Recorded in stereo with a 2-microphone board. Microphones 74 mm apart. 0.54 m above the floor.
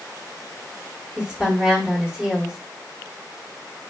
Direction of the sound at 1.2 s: 15° right (ahead or behind).